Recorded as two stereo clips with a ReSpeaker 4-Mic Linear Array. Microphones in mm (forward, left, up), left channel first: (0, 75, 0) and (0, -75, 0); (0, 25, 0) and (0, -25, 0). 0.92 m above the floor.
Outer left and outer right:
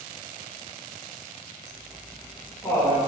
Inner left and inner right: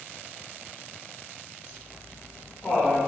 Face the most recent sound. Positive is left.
turn(degrees=20)  # may be behind; listen again after turning